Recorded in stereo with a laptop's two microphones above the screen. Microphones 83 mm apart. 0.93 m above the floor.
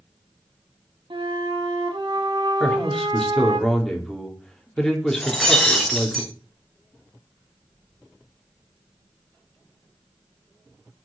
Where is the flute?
70° right (ahead or behind), 1.8 m.